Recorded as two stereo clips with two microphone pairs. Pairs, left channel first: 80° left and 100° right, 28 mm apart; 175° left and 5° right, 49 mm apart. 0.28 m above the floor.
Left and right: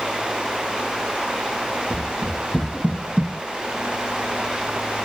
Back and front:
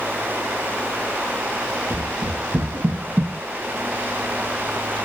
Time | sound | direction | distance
1.9 | running footsteps | 40° right | 0.8 m